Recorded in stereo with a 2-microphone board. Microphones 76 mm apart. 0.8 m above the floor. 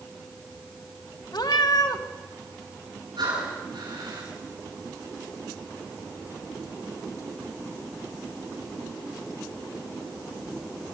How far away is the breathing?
About 8.5 m.